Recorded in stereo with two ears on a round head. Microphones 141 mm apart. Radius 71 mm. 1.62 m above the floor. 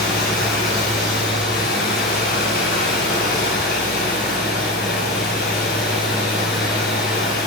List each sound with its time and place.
0.0 s running water: 65° left (ahead or behind), 3 m